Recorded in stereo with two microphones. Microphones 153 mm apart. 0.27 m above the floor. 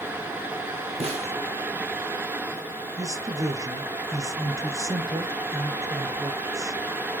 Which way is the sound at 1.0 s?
45° right (ahead or behind).